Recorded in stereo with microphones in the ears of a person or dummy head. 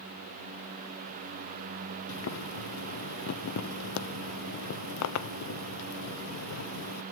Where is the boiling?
75° left (ahead or behind), 0.6 m.